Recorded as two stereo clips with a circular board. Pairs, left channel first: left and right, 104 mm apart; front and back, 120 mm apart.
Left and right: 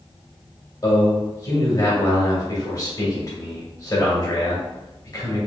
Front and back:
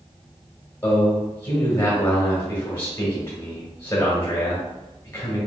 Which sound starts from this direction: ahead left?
A man speaking, at 0.8 s.